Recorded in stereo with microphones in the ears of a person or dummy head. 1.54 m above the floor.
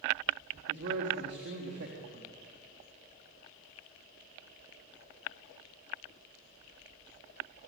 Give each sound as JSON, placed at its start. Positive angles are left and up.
{"t": 0.7, "sound": "a man speaking", "side_deg": -65, "distance_m": 4.0}